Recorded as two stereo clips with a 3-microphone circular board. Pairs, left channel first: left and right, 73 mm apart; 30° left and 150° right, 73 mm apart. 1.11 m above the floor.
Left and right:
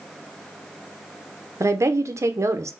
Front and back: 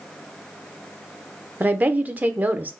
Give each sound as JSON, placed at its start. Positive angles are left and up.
{"t": 1.6, "sound": "a woman speaking", "azimuth_deg": -95, "distance_m": 0.5}